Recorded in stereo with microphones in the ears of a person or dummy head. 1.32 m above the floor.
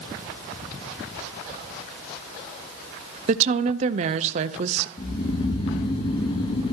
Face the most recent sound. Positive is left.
turn(degrees=30)  # may be behind; listen again after turning